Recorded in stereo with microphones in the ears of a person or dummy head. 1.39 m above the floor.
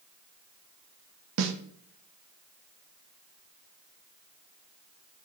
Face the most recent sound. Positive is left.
turn(degrees=-65)  # may be behind; listen again after turning